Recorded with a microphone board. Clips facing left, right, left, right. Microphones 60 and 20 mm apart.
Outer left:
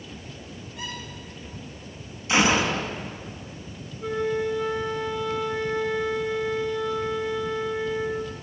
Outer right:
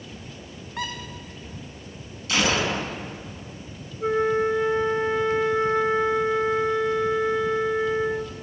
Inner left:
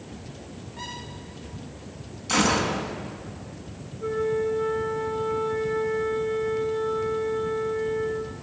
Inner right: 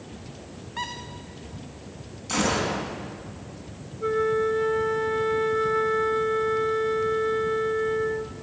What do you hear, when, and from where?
0.8 s a squeak: 60° right (ahead or behind), 4 m
2.3 s a gunshot: 20° left (ahead or behind), 4.5 m
4.0 s a flute: 30° right (ahead or behind), 1.8 m